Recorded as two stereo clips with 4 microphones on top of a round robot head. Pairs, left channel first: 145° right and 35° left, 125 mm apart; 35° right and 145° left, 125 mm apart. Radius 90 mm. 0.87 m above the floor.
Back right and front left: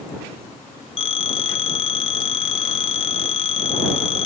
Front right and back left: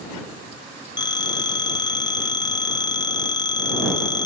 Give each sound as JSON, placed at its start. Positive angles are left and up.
{"t": 1.0, "sound": "a phone ringing", "azimuth_deg": -95}